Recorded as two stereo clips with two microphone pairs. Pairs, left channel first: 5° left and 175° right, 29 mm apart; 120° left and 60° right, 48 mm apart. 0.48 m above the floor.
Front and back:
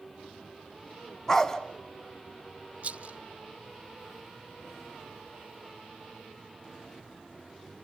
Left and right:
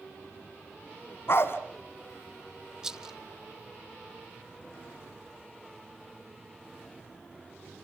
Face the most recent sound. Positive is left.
turn(degrees=-135)